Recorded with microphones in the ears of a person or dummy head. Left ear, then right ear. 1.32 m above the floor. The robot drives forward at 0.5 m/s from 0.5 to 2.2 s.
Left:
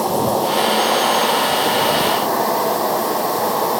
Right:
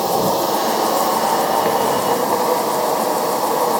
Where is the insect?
55° right (ahead or behind), 0.8 m; by 3.8 s 50° right (ahead or behind), 0.9 m.